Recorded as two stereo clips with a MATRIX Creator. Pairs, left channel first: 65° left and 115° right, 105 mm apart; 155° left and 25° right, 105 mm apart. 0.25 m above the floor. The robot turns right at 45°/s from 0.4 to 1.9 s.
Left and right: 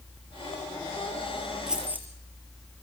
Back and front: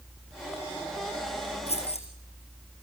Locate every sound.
1.7 s keys jangling: 165° left, 4 m; by 2.1 s 175° left, 4 m